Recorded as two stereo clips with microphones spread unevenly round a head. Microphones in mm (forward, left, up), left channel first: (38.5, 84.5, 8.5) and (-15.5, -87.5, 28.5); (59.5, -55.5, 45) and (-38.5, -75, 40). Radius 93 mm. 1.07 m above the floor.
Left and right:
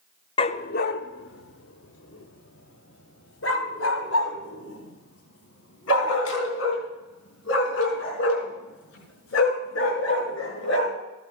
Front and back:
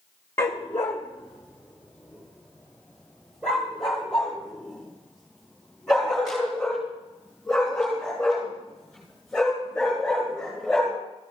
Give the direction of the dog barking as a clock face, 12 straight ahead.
11 o'clock.